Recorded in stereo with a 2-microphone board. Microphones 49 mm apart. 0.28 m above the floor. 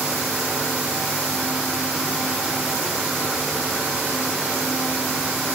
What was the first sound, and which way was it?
Only background noise.